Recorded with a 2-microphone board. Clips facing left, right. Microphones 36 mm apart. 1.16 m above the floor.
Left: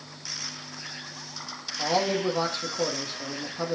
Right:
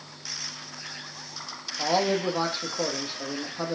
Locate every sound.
1.8 s a man speaking: 10° right (ahead or behind), 2 m